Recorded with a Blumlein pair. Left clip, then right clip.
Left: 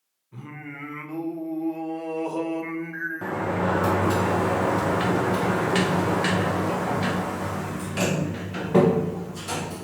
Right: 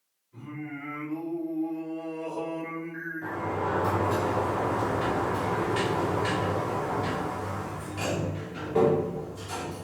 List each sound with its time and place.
0.3 s singing: 50° left, 1.0 m
3.2 s a sliding door: 45° left, 0.7 m